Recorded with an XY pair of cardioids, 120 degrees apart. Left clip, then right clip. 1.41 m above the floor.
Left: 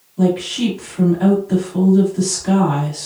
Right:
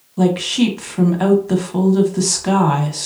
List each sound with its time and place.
0.2 s a woman speaking: 60° right, 1.1 m